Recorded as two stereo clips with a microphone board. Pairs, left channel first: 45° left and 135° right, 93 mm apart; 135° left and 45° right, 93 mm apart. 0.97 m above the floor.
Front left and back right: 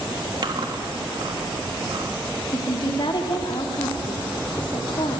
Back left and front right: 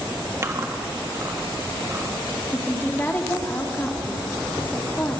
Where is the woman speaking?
70° left, 2.5 m.